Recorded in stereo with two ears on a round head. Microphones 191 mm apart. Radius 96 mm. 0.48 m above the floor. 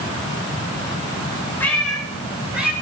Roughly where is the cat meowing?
Centre.